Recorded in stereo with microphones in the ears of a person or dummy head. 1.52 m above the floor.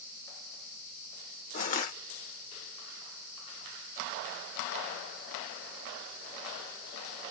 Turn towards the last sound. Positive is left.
turn(degrees=40)  # may be behind; listen again after turning